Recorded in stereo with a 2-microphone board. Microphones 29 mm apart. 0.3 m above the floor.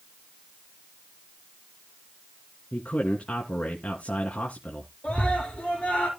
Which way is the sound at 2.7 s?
55° left (ahead or behind).